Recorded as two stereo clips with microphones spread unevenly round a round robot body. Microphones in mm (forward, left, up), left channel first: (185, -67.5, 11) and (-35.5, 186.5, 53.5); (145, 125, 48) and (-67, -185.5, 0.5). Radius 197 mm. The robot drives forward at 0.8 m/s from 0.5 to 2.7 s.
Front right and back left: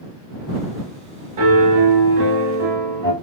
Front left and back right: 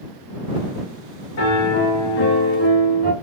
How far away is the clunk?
No clunk in this recording.